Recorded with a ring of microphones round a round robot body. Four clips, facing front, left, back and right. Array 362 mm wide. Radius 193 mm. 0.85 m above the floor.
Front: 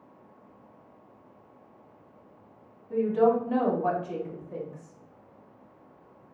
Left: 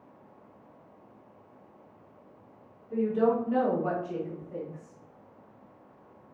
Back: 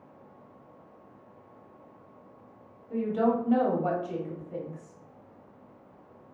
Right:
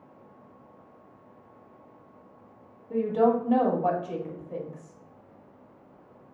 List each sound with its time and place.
2.9 s a woman speaking: 70° right, 2 m